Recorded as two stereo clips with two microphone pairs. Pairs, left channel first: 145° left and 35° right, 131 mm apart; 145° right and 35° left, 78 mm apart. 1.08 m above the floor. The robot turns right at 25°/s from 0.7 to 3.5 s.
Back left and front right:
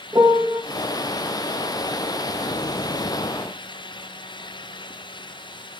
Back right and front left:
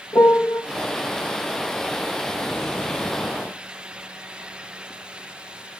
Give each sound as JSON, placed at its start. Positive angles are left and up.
{"t": 0.1, "sound": "a piano", "azimuth_deg": -95, "distance_m": 0.8}